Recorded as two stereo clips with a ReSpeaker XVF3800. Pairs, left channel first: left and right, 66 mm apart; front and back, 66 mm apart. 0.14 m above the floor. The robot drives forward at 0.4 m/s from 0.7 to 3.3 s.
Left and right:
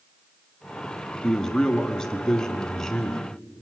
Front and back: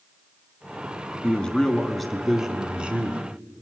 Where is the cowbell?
I don't hear a cowbell.